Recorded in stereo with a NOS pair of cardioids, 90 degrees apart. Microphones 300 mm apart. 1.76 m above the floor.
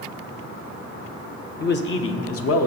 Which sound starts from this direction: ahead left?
A man speaking, at 1.6 s.